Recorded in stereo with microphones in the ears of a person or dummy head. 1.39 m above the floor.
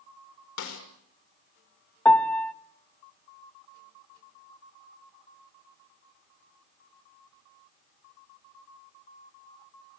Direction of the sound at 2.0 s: 10° left (ahead or behind).